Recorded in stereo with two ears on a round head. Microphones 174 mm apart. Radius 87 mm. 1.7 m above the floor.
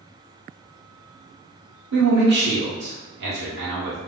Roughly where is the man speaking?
Right.